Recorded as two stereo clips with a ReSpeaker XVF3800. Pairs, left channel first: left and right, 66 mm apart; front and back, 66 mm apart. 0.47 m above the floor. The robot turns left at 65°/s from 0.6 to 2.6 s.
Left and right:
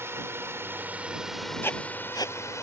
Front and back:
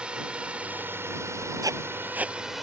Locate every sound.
0.0 s a drone: 110° right; by 2.6 s 95° left
1.6 s writing: 150° left; by 2.4 s 105° left